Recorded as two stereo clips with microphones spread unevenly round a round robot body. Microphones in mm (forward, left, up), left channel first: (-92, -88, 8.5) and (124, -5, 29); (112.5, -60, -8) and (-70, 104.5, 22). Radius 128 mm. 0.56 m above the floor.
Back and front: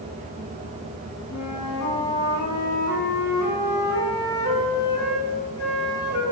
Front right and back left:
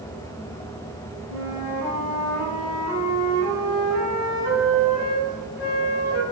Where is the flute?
145° right, 5.5 m.